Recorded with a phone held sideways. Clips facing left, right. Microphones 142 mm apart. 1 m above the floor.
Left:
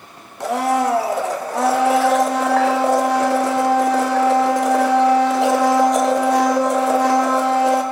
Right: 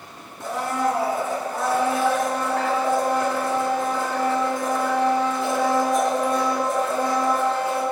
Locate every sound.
0.4 s a blender: 80° left, 0.7 m